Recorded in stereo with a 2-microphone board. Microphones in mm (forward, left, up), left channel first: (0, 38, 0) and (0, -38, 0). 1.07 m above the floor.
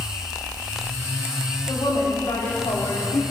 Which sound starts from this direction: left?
A woman speaking, at 1.7 s.